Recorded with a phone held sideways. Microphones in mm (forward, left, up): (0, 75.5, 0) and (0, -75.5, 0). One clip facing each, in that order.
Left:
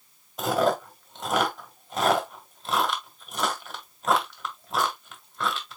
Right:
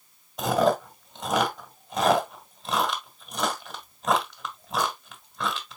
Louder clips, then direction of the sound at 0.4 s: Right 1 dB; centre (ahead or behind).